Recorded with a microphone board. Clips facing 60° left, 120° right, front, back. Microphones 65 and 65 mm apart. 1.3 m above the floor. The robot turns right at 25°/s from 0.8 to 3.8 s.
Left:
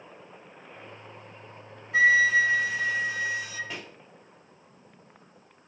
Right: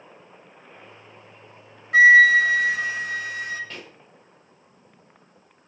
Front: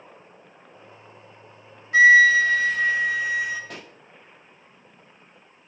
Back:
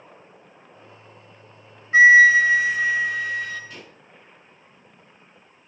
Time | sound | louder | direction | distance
1.9 | a flute | right 8 dB, back 2 dB | 120° right | 0.8 m
3.7 | a pop | left 1 dB, front 2 dB | 20° right | 1.1 m